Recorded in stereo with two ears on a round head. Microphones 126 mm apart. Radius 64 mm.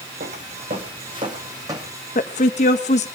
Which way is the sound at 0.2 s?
50° right (ahead or behind).